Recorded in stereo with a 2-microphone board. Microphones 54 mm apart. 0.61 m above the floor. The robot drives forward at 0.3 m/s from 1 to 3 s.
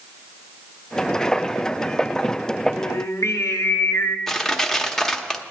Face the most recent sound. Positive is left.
turn(degrees=5)  # may be behind; listen again after turning